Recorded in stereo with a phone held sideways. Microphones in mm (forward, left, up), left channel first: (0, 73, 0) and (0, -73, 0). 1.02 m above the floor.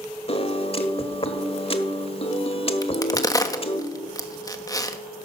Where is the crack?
25° left (ahead or behind), 1.2 m.